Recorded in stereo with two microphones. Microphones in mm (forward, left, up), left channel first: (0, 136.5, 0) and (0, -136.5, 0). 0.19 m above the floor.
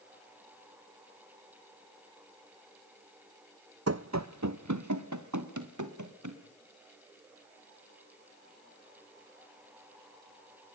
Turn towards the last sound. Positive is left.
turn(degrees=-85)